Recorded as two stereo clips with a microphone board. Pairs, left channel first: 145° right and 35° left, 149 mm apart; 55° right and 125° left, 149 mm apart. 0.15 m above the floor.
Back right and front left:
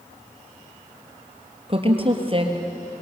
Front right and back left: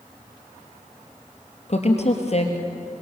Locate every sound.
1.7 s a woman speaking: 15° right, 3.5 m